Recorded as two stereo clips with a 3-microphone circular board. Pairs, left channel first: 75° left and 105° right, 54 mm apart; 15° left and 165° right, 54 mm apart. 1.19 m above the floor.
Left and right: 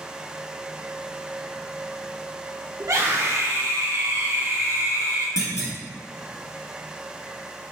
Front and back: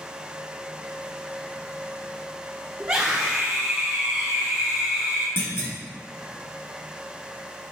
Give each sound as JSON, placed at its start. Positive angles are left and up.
{"t": 2.8, "sound": "a scream", "azimuth_deg": -115, "distance_m": 1.1}
{"t": 5.4, "sound": "a clunk", "azimuth_deg": 55, "distance_m": 3.0}